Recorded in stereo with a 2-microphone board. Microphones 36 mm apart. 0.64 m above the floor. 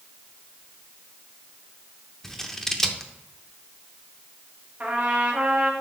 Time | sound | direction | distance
2.2 | scissors | 10° left (ahead or behind) | 0.7 m
4.8 | a trumpet | 45° right (ahead or behind) | 1.5 m